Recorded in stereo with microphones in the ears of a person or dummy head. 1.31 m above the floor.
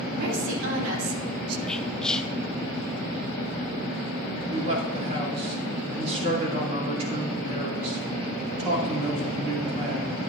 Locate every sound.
0.1 s a woman speaking: 75° right (ahead or behind), 2.5 m; by 1.6 s 80° right, 1.1 m
1.7 s whispering: 5° left (ahead or behind), 0.6 m
4.5 s a man speaking: 40° right (ahead or behind), 2.5 m